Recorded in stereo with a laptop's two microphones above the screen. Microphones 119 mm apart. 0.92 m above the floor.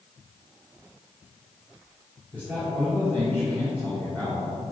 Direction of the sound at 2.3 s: 10° left (ahead or behind).